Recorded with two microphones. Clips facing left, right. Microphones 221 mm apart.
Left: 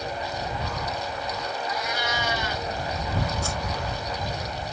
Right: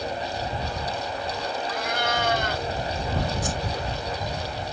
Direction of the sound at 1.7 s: 60° right (ahead or behind).